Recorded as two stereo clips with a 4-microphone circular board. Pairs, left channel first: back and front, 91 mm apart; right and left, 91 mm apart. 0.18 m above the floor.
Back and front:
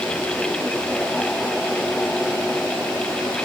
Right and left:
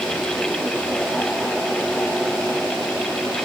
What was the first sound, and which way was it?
Only background noise.